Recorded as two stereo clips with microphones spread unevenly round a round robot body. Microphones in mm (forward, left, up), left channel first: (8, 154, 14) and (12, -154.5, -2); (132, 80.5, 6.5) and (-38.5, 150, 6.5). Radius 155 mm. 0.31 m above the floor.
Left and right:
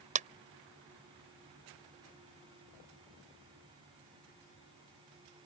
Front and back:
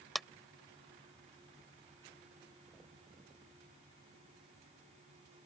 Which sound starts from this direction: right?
A clap, at 0.1 s.